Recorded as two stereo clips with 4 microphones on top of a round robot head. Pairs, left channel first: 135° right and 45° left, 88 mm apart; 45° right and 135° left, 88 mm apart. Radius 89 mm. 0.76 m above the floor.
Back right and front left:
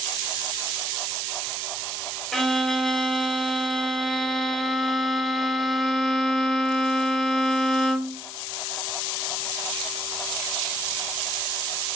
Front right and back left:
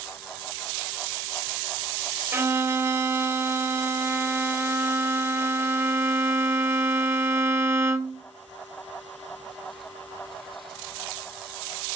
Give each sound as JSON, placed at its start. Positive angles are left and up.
{"t": 2.3, "sound": "a violin", "azimuth_deg": 145, "distance_m": 0.7}